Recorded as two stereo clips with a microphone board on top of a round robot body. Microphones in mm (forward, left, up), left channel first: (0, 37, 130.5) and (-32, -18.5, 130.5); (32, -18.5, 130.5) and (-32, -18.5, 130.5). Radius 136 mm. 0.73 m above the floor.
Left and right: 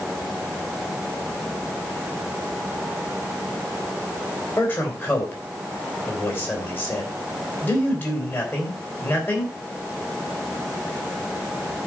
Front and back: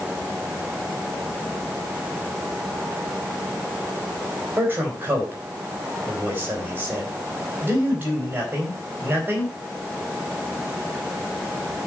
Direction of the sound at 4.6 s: 120° left.